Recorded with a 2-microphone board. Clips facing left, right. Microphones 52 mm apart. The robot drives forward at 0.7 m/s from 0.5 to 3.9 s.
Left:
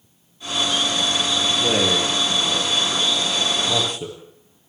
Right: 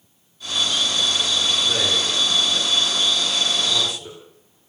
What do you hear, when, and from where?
1.6 s a man speaking: 65° left (ahead or behind), 9 m; by 4.2 s 55° left (ahead or behind), 10 m